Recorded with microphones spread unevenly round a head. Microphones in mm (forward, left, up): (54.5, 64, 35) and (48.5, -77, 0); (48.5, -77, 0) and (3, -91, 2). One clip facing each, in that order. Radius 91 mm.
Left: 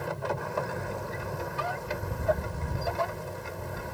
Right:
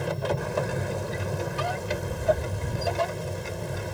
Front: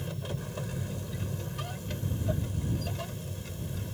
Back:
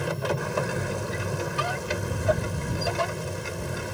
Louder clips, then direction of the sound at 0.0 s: Right 4 dB, back 10 dB; 165° right.